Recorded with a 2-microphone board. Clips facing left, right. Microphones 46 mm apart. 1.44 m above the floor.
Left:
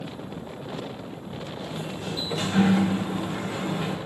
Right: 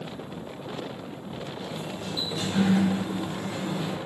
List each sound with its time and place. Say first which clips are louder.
1.6 s a sliding door: left 3 dB; 35° left (ahead or behind), 0.8 m